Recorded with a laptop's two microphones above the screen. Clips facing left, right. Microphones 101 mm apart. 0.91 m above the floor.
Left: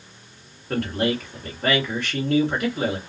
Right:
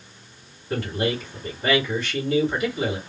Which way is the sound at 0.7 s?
60° left (ahead or behind).